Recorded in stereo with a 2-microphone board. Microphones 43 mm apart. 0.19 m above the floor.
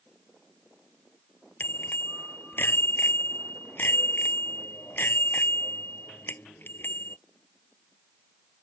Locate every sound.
1.6 s a bicycle bell: 55° left (ahead or behind)